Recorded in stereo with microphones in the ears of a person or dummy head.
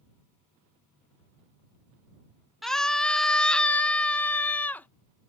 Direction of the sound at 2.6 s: Centre (ahead or behind).